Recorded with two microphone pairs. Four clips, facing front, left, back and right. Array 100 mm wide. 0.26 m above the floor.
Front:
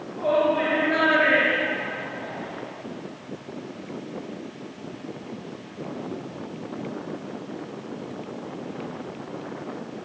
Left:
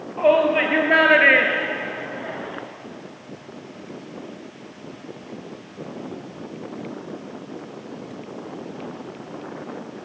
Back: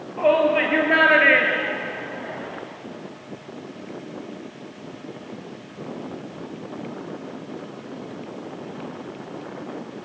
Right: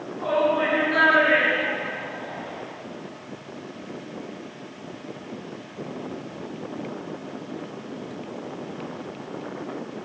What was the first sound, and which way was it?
A shout, 125° left.